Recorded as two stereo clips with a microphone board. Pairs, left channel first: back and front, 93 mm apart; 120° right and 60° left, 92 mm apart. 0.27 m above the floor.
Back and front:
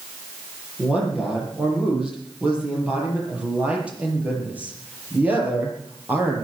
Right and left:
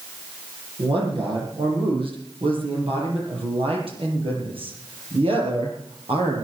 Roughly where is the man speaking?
Left.